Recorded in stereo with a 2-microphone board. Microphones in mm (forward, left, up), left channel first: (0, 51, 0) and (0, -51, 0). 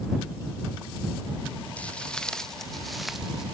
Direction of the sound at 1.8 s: 10° left (ahead or behind).